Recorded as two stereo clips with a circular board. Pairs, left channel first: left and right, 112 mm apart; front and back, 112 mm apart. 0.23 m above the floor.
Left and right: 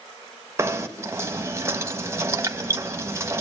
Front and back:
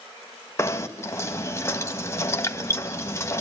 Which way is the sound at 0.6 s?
45° right.